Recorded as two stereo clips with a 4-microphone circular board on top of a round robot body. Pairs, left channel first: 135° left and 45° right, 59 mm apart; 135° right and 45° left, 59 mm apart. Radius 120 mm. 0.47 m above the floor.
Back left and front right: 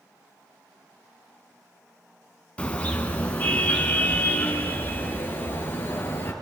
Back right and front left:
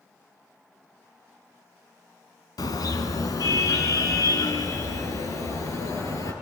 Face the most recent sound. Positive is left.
turn(degrees=-170)